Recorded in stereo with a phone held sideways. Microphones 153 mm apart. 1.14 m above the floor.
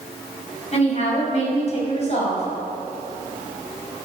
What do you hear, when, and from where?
0.7 s a woman speaking: 45° left (ahead or behind), 6 m